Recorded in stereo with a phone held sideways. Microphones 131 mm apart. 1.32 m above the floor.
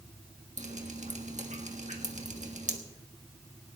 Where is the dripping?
65° right (ahead or behind), 1.3 m.